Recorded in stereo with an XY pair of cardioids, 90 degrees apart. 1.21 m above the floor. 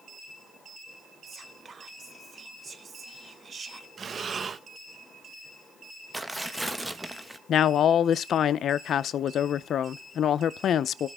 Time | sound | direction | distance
1.3 | whispering | 45° right | 1.4 m
4.0 | breathing | 45° right | 0.7 m
6.1 | tearing paper | 10° right | 1.3 m
7.5 | a woman speaking | 70° left | 0.5 m